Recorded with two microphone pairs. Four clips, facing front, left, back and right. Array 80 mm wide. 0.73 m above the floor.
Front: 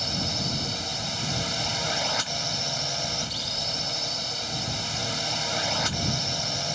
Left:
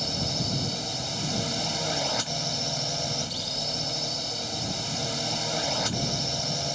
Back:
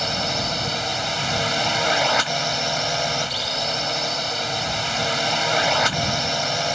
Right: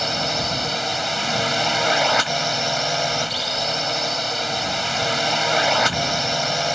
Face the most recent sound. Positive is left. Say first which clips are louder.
# right 8 dB, back 7 dB
turn(degrees=-120)